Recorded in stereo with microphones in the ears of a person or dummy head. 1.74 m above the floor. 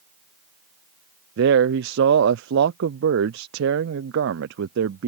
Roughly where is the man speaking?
Right.